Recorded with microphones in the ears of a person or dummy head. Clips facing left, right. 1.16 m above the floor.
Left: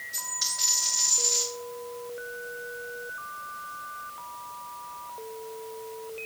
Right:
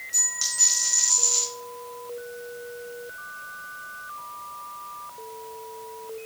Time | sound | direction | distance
0.1 | a dropped coin | 45° right (ahead or behind) | 4.5 m